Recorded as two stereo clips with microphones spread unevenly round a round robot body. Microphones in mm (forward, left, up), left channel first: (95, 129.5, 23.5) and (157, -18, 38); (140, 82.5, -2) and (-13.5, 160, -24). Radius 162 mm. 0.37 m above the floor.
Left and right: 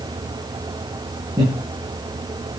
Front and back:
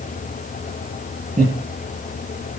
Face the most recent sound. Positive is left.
turn(degrees=-140)